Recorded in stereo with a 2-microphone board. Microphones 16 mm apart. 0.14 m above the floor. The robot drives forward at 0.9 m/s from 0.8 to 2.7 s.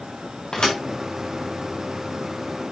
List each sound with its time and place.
0.5 s a thud: 55° left (ahead or behind), 2.5 m